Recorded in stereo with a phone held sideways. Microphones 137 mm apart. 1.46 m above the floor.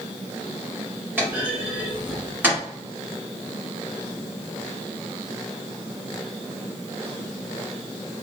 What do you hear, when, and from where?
1.2 s a clunk: 15° right (ahead or behind), 1.7 m